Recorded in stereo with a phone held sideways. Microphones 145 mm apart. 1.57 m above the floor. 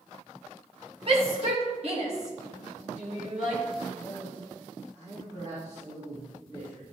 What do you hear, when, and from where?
1.1 s a shout: 40° right (ahead or behind), 1.8 m; by 3.6 s 55° right (ahead or behind), 3 m
3.9 s a man speaking: 30° right (ahead or behind), 2.5 m